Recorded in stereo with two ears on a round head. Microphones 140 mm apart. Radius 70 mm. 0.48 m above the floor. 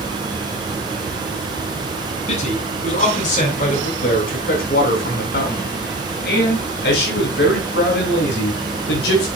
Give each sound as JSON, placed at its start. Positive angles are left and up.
{"t": 2.3, "sound": "a man speaking", "side_deg": 45, "distance_m": 4.5}